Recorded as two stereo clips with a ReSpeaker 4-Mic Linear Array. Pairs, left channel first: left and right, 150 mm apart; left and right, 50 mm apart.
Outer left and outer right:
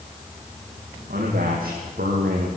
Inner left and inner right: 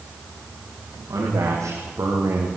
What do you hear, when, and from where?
1.1 s a man speaking: 75° right (ahead or behind), 8.5 m; by 2.5 s 80° right, 7 m